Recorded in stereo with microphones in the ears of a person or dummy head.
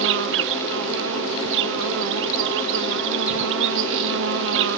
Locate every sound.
0.0 s an insect: 70° right (ahead or behind)